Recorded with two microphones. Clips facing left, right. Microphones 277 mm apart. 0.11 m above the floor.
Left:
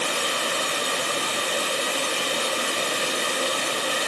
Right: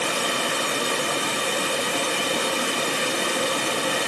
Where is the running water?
65° right (ahead or behind), 1.3 m.